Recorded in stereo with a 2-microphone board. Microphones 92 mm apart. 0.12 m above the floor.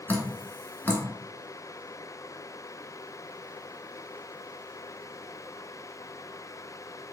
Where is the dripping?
25° left (ahead or behind), 0.6 m.